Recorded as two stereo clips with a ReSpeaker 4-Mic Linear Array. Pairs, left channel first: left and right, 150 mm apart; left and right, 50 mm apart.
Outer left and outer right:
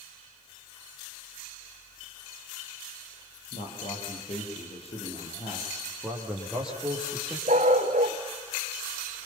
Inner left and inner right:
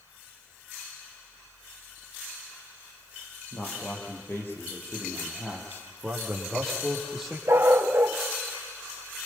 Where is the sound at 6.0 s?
5° right (ahead or behind), 7 m.